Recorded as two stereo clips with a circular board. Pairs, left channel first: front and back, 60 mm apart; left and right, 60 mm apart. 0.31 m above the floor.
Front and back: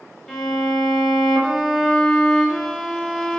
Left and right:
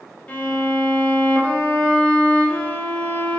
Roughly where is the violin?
Left.